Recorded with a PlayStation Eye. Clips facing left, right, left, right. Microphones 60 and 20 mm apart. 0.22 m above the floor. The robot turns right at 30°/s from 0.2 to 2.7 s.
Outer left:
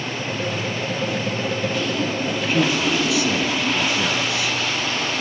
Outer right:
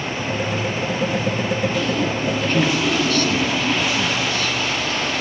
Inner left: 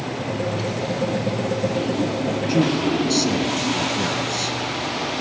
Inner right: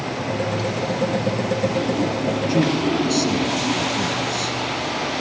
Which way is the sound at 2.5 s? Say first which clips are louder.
Even, inner left 1 dB; 5° left (ahead or behind).